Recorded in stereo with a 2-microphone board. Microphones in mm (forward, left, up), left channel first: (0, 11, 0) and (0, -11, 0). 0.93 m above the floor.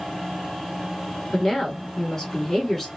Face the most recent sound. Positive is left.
turn(degrees=20)  # may be behind; listen again after turning